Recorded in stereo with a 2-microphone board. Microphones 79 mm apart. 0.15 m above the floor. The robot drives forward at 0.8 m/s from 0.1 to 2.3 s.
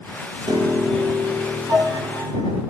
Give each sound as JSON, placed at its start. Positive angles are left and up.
{"t": 0.5, "sound": "a piano", "side_deg": -60, "distance_m": 4.0}